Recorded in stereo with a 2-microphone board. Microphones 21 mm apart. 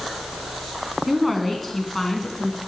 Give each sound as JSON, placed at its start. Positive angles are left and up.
{"t": 1.1, "sound": "a woman speaking", "side_deg": -5, "distance_m": 1.6}